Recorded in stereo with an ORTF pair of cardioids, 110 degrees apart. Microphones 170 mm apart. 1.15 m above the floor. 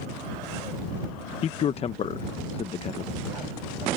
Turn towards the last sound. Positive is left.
turn(degrees=35)